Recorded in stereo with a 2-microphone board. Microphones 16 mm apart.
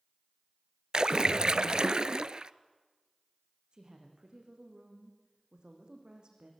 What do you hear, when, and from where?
0.9 s a splash: 50° right (ahead or behind), 0.5 m
3.7 s a woman speaking: 55° right (ahead or behind), 6 m